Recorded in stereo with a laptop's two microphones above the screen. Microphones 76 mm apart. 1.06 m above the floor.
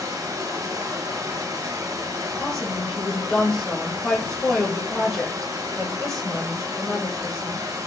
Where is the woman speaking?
5° left (ahead or behind), 0.7 m.